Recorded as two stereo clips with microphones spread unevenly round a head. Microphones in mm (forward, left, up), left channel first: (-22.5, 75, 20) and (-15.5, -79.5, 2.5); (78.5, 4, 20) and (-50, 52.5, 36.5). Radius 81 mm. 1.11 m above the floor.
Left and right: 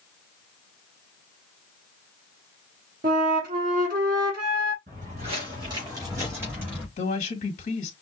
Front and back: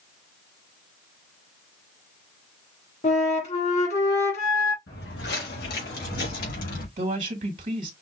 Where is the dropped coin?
No dropped coin in this recording.